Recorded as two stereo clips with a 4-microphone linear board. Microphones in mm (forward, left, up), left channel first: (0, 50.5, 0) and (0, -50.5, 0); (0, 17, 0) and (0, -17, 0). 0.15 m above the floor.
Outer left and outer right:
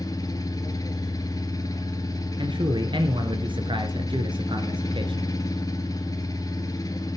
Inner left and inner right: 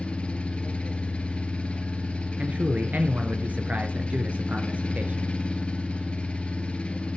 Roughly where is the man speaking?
Right.